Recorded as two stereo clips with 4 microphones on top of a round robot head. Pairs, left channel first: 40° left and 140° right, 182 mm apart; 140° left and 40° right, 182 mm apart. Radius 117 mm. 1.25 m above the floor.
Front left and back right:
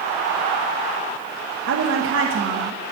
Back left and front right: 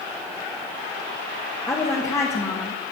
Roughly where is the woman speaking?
Behind right.